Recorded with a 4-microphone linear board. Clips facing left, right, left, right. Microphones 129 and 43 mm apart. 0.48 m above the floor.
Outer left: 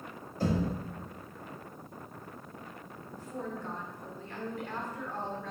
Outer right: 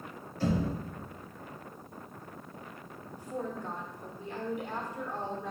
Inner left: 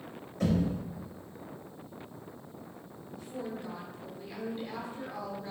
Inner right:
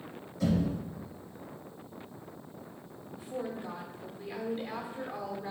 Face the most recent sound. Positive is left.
turn(degrees=-15)  # may be behind; listen again after turning